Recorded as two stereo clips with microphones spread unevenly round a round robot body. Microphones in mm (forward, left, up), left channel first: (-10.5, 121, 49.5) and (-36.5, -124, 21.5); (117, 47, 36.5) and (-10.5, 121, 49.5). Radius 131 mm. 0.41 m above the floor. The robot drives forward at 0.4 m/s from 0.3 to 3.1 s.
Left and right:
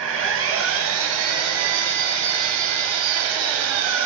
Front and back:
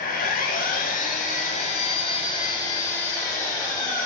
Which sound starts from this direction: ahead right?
An engine running, at 0.0 s.